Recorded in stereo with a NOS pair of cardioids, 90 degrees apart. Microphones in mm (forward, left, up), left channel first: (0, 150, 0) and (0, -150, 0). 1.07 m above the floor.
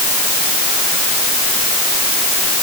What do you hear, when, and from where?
Only background noise.